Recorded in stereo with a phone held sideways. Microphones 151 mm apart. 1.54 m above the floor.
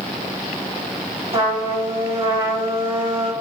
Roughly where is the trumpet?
Right.